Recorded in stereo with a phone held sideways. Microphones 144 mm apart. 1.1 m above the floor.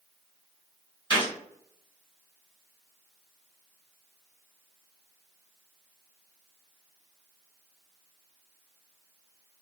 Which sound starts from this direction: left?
A gunshot, at 1.1 s.